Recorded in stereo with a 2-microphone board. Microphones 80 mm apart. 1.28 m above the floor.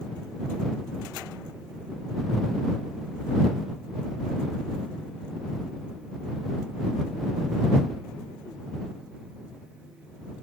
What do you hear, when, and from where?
Only background noise.